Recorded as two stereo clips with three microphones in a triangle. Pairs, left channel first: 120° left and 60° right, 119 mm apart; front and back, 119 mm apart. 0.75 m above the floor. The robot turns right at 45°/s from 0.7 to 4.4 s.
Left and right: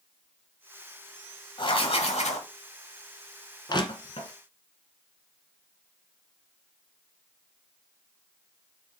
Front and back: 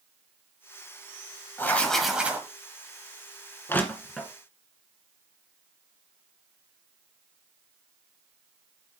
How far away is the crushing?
About 1.4 m.